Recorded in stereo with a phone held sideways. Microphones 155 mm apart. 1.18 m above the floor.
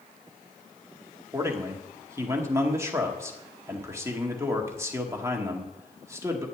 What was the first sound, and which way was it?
A man speaking, 20° right (ahead or behind).